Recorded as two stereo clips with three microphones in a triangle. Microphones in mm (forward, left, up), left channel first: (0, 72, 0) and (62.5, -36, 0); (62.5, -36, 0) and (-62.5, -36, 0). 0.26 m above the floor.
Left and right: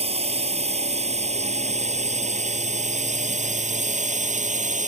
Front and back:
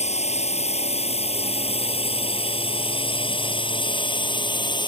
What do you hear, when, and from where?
0.0 s a drone: 25° right; by 4.9 s 50° right